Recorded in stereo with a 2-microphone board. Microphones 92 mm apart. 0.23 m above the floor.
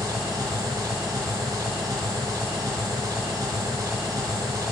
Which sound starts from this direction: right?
An engine running, at 0.0 s.